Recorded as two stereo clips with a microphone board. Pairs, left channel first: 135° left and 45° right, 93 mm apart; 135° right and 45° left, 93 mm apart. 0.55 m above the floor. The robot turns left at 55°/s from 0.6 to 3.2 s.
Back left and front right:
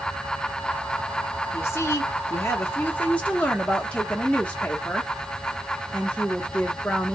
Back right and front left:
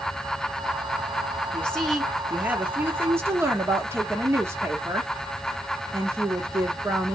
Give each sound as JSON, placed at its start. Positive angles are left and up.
{"t": 1.5, "sound": "a woman speaking", "azimuth_deg": 165, "distance_m": 1.2}